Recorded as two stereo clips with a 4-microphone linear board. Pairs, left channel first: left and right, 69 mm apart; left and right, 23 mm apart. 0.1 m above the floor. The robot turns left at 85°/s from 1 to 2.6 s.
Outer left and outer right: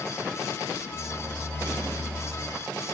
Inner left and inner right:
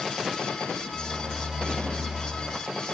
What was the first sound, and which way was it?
Only background noise.